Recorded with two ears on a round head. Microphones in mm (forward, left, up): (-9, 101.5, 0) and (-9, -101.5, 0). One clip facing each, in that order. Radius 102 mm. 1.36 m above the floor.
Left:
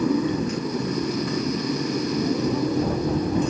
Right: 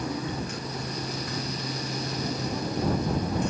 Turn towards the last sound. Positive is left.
turn(degrees=65)  # may be behind; listen again after turning